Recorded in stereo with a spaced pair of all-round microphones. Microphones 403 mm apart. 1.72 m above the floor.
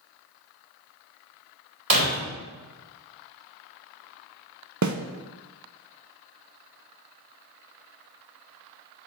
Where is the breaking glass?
70° right (ahead or behind), 3.5 m.